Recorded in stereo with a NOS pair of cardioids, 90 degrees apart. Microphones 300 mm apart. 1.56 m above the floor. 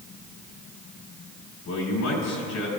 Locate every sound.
1.6 s a man speaking: 65° left, 6 m